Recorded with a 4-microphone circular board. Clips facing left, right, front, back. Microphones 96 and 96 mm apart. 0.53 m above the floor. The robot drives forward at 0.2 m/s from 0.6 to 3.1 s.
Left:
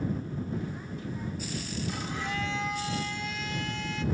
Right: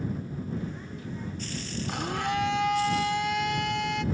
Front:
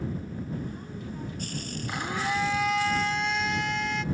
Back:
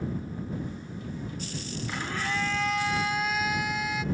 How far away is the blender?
About 0.5 m.